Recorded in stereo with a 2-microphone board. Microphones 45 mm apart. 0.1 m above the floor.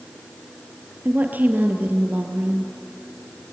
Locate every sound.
1.1 s a woman speaking: 45° right (ahead or behind), 1.9 m